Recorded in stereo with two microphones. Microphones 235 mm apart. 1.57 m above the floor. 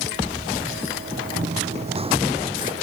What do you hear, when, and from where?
1.4 s running footsteps: 30° right (ahead or behind); by 2.7 s 20° right (ahead or behind)